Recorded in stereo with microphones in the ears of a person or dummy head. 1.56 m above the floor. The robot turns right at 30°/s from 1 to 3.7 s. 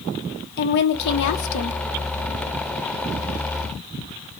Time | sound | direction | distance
0.6 | a woman speaking | 60° left (ahead or behind) | 0.7 m